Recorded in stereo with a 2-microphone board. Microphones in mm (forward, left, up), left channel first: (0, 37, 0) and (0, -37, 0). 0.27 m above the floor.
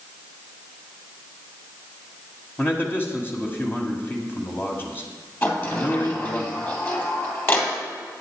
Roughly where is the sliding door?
Left.